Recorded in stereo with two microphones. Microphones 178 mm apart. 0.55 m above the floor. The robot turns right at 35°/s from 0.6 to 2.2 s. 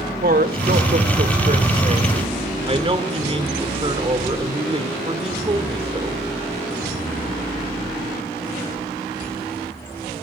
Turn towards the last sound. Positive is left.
turn(degrees=-40)